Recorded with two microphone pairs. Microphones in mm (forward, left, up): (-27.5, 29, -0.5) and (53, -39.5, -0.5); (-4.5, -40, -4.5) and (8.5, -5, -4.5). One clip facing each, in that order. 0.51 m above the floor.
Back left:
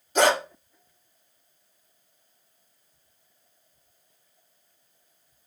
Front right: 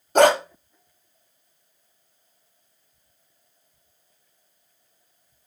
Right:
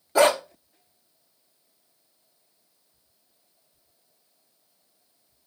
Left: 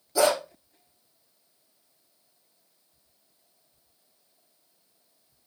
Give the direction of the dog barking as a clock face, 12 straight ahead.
2 o'clock.